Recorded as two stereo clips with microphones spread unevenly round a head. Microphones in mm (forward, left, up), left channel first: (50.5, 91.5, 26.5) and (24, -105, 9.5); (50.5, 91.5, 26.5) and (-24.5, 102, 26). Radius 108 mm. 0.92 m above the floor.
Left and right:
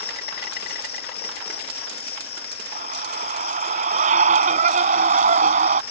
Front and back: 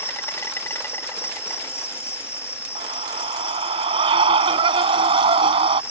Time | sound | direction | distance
0.0 | an insect | 45° left | ?
2.8 | a scream | 155° right | ?